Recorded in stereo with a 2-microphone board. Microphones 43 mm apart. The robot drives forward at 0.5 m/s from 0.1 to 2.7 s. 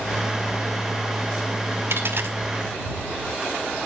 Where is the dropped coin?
60° right (ahead or behind), 1.8 m.